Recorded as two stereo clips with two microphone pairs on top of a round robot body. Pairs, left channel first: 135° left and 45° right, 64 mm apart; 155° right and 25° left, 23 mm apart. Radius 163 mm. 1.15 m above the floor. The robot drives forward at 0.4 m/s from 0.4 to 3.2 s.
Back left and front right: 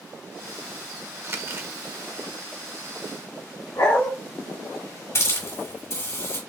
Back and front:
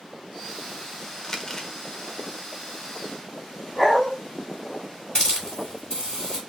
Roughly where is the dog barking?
Behind left.